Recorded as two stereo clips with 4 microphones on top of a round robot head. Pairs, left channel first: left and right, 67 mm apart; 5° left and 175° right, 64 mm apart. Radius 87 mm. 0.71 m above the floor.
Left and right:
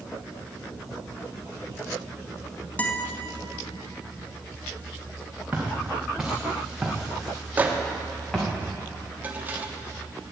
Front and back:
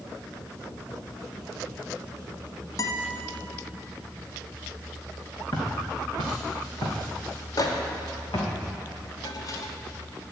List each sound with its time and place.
2.8 s a guitar: 25° left, 1.4 m
5.5 s footsteps: 15° right, 3.5 m; by 8.5 s 10° left, 3.5 m
7.6 s a microwave: 25° right, 1.3 m